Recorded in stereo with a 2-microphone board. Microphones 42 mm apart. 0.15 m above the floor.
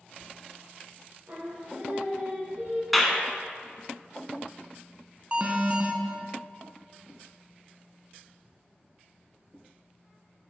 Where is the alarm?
30° right (ahead or behind), 0.8 m.